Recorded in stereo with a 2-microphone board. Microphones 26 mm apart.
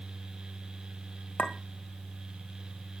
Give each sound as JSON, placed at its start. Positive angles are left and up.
{"t": 1.4, "sound": "a clink", "side_deg": 60, "distance_m": 1.7}